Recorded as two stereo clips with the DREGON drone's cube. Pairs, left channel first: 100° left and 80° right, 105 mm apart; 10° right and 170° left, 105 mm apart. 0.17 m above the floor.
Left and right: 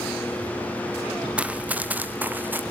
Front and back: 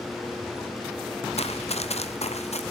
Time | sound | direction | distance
1.4 | running footsteps | straight ahead | 1.8 m